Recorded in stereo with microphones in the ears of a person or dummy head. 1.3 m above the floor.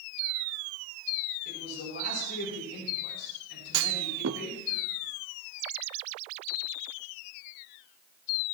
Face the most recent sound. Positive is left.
turn(degrees=-70)  # may be behind; listen again after turning